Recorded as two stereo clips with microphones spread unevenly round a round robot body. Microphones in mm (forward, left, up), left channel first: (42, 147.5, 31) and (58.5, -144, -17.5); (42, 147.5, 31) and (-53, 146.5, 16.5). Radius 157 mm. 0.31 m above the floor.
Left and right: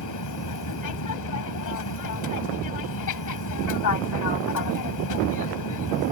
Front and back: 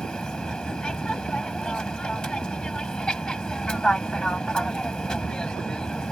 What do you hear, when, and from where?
0.0 s an aircraft: 85° left